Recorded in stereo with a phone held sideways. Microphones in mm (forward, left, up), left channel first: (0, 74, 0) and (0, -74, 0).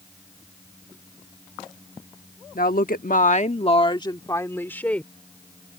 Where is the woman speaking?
75° left (ahead or behind); by 5.1 s 10° left (ahead or behind).